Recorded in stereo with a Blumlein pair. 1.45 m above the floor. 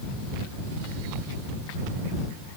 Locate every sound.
Only background noise.